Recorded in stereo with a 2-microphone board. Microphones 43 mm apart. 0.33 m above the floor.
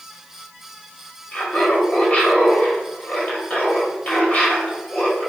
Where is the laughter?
35° left (ahead or behind), 1.8 m.